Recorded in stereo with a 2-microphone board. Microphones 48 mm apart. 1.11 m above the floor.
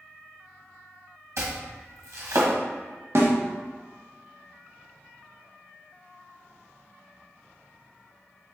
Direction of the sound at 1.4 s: 70° right (ahead or behind).